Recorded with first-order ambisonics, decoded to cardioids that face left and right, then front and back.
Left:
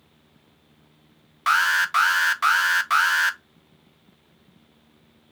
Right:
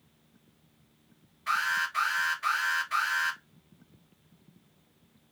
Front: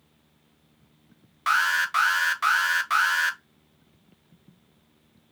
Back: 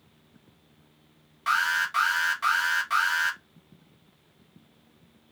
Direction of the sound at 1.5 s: 70° left.